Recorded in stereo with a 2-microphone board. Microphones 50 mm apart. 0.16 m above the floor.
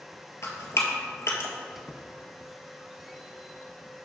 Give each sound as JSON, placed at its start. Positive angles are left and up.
{"t": 0.4, "sound": "dripping", "side_deg": 65, "distance_m": 1.3}
{"t": 1.8, "sound": "a squeak", "side_deg": -5, "distance_m": 0.7}